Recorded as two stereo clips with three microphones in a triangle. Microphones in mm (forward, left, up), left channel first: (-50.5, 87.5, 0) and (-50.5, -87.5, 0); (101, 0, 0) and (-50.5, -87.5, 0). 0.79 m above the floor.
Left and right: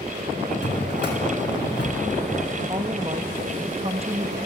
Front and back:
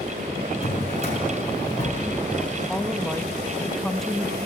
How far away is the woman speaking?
About 1.0 m.